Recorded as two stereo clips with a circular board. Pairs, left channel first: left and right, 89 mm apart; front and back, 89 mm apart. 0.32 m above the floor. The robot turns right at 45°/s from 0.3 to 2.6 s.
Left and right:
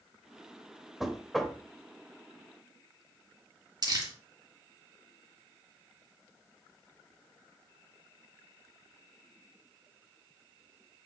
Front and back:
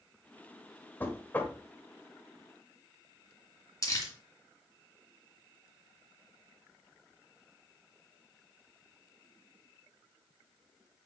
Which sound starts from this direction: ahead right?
Crumpling, at 3.8 s.